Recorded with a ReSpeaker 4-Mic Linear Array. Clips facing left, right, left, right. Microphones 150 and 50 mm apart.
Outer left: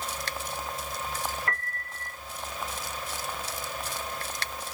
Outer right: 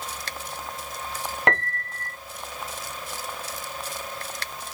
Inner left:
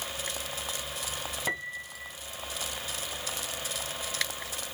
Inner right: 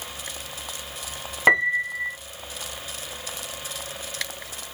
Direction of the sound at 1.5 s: 80° right.